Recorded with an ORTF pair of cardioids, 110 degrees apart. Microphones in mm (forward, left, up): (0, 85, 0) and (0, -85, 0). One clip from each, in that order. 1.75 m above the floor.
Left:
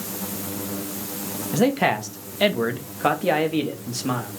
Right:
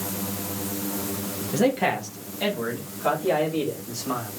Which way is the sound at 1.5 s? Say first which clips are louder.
Left 2 dB; 20° left.